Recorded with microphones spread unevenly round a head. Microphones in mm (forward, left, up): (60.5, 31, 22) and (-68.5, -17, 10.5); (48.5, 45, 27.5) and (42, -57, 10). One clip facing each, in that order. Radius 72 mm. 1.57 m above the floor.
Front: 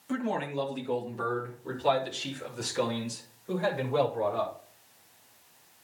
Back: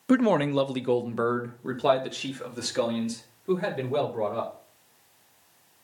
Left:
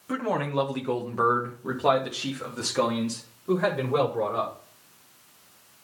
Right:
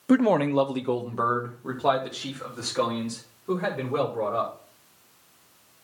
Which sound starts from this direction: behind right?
A man speaking, at 0.1 s.